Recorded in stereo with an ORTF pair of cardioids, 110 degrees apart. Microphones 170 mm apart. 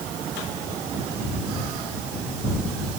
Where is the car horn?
No car horn in this recording.